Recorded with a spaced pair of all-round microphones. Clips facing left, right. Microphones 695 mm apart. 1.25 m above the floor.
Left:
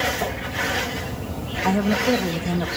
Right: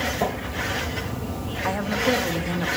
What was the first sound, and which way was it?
A woman speaking, 60° left (ahead or behind).